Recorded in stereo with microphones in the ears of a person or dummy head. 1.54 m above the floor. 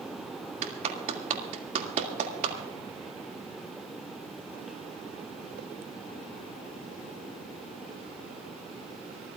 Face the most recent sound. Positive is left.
turn(degrees=-35)  # may be behind; listen again after turning